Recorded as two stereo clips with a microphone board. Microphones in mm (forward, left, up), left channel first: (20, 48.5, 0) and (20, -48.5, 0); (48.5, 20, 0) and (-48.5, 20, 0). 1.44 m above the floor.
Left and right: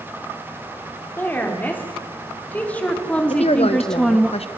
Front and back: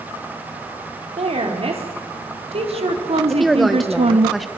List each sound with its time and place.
1.2 s a woman speaking: 160° left, 4 m; by 4.3 s straight behind, 1.2 m
3.3 s a woman speaking: 90° left, 1.4 m